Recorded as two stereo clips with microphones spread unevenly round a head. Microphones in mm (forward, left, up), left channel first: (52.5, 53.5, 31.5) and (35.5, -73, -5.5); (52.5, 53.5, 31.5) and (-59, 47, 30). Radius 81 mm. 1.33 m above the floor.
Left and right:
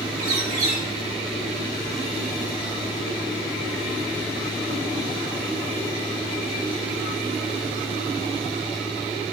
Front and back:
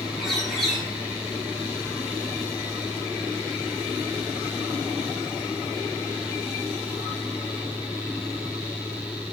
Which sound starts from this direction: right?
A bird, at 0.2 s.